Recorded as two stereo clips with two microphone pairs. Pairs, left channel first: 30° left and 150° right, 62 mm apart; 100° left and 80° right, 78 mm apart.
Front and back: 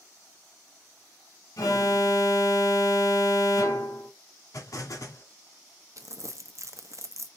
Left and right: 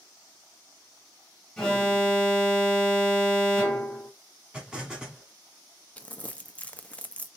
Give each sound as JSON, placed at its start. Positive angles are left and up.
{"t": 1.6, "sound": "an alarm", "azimuth_deg": 15, "distance_m": 1.9}
{"t": 4.5, "sound": "an explosion", "azimuth_deg": 0, "distance_m": 1.8}
{"t": 6.0, "sound": "crumpling", "azimuth_deg": 170, "distance_m": 0.6}